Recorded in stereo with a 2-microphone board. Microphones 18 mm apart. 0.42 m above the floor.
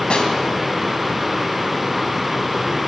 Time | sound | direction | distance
0.1 | a snare drum | 50° left (ahead or behind) | 3 m